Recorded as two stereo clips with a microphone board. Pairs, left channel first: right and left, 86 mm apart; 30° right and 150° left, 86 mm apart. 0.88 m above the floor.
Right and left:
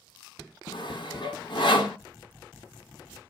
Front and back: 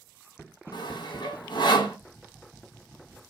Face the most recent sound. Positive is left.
turn(degrees=-65)